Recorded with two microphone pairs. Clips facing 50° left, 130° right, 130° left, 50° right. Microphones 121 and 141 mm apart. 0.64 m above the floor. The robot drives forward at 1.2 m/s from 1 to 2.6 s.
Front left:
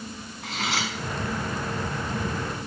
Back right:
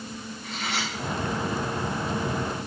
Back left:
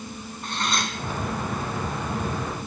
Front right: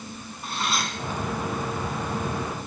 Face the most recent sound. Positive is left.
turn(degrees=65)